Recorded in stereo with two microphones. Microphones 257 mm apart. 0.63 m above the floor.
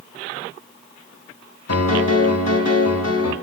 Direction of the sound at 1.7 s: 65° left (ahead or behind).